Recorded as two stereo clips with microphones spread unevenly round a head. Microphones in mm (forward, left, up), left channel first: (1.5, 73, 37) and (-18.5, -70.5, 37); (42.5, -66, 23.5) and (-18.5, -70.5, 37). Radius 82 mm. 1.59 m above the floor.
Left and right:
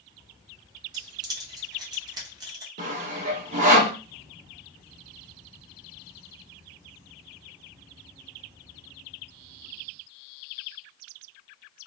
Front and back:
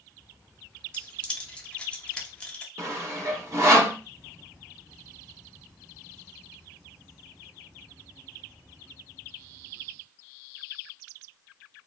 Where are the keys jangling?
80° right, 0.6 m.